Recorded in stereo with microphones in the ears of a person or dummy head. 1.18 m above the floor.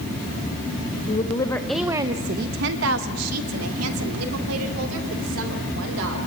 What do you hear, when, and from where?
1.1 s a woman speaking: 30° left (ahead or behind), 1.3 m; by 6.2 s 80° right, 4.5 m